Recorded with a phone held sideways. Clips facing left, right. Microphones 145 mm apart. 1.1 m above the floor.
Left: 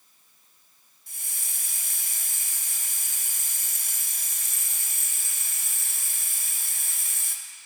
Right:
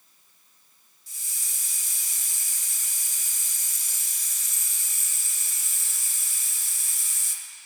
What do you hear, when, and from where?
1.1 s a hiss: 55° left (ahead or behind), 0.8 m